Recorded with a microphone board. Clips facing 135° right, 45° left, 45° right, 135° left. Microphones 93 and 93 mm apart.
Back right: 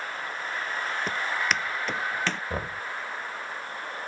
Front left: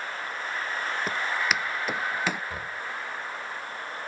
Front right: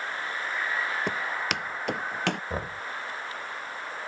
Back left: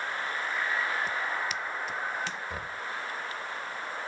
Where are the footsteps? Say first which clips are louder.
Even, front right 2 dB; 40° right; by 2.4 s 35° right.